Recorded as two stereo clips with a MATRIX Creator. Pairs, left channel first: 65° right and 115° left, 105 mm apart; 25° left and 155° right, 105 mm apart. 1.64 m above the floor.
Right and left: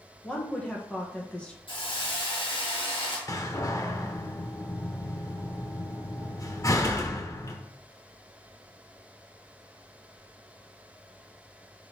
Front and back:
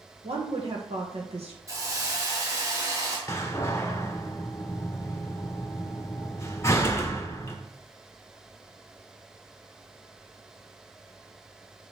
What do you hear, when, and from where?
0.2 s a woman speaking: 145° right, 1.6 m
1.7 s a hiss: 100° right, 1.9 m
3.3 s a door slam: 30° right, 0.9 m